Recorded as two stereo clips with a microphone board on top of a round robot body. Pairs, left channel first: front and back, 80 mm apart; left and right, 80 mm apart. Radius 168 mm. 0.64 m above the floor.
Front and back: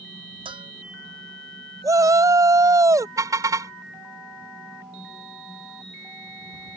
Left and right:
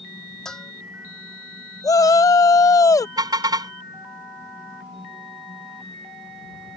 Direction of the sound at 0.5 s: 175° left.